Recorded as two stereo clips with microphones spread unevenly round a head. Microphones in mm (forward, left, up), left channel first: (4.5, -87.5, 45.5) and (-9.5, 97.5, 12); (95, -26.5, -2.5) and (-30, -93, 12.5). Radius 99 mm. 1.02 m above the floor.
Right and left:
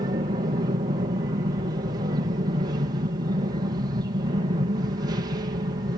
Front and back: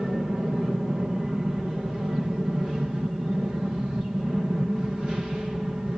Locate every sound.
0.0 s an aircraft: 120° left